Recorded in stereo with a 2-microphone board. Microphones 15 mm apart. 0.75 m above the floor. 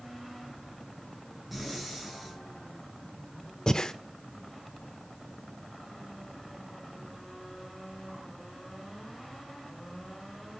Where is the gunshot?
I don't hear a gunshot.